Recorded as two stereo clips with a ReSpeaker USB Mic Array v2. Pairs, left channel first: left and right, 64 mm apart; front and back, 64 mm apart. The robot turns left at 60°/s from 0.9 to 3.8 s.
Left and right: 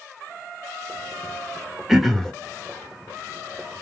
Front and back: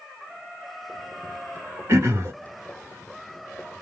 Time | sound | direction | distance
1.9 | throat clearing | 170° right | 0.9 m